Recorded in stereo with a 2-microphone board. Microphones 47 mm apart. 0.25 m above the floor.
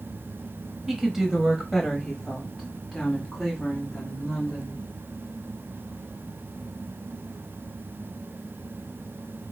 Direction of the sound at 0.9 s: 10° right (ahead or behind).